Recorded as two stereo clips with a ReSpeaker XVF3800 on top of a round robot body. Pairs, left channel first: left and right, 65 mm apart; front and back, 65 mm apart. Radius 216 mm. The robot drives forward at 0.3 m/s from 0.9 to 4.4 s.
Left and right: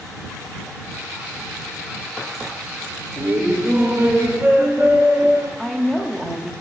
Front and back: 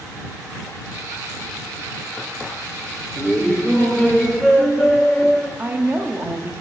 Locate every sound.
3.2 s laughter: 70° right, 1.1 m; by 5.5 s 105° right, 1.1 m
5.6 s a woman speaking: straight behind, 0.7 m